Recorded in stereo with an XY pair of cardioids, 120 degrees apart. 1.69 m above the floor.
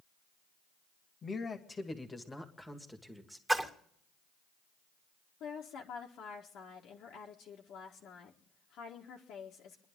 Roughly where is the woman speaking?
Left.